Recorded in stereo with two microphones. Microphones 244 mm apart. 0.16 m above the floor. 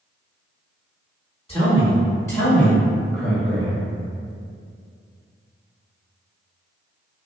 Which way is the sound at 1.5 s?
25° left (ahead or behind).